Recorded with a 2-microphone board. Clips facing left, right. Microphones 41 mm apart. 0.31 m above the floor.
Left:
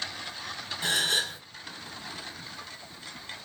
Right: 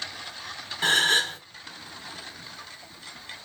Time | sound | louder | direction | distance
0.8 | a gasp | right 6 dB | 50° right (ahead or behind) | 0.9 m